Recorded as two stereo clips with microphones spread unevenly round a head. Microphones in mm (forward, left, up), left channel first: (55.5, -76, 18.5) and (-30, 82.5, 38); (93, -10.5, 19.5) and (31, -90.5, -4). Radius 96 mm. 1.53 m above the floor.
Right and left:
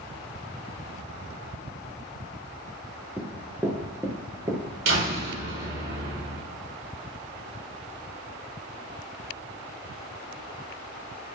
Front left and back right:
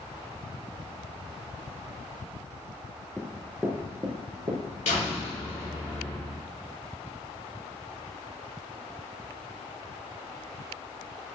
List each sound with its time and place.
3.2 s running footsteps: 80° left, 1.5 m; by 4.6 s 175° left, 1.9 m
4.8 s a door slam: 100° left, 4.5 m